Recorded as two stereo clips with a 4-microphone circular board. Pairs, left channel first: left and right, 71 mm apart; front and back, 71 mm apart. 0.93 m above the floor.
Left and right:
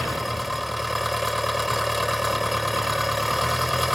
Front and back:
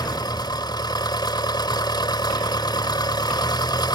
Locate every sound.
0.0 s an engine running: straight ahead